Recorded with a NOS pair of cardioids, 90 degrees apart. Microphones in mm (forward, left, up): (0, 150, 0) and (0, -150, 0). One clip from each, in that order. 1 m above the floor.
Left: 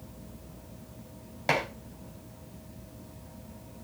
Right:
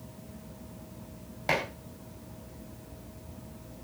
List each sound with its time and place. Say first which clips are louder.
1.5 s dishes clattering: left 1 dB; 20° left, 4.5 m